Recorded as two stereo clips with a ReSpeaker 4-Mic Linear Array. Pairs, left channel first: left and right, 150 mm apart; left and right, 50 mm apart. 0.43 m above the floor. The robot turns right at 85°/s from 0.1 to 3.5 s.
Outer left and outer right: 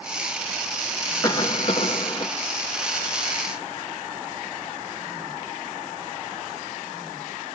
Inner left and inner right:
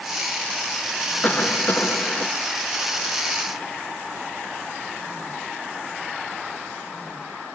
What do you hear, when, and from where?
1.2 s a cough: 40° left, 1.1 m; by 2.3 s 130° left, 1.1 m